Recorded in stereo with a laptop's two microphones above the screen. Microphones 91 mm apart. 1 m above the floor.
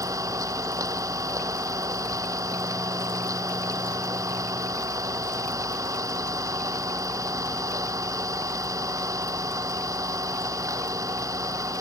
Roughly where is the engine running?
Right.